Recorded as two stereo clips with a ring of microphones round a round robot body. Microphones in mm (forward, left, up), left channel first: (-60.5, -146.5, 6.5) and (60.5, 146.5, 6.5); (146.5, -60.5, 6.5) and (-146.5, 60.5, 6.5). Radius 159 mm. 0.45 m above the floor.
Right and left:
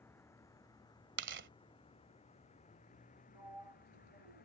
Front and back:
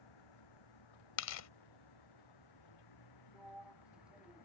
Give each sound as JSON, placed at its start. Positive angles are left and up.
{"t": 0.0, "sound": "a vehicle", "azimuth_deg": -30}
{"t": 1.2, "sound": "tearing paper", "azimuth_deg": 15}
{"t": 3.3, "sound": "a sliding door", "azimuth_deg": 70}